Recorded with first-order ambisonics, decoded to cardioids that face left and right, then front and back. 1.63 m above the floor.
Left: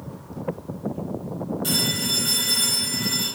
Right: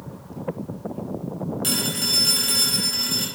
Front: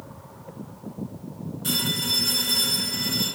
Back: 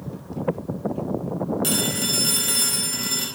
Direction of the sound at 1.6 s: 140° right.